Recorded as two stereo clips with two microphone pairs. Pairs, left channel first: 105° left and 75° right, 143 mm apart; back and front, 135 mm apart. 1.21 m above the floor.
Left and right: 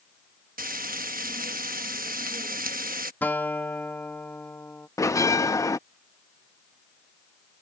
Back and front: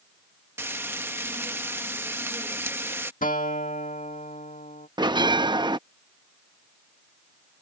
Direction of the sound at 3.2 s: Straight behind.